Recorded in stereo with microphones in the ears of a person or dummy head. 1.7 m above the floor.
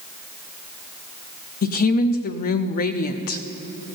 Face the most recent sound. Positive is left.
turn(degrees=45)  # may be behind; listen again after turning